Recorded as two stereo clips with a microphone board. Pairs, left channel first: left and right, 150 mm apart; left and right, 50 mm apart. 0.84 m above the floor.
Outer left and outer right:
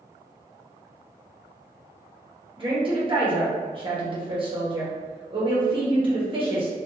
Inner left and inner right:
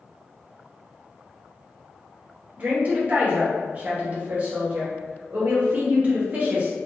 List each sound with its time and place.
2.6 s a woman speaking: 35° right (ahead or behind), 1.0 m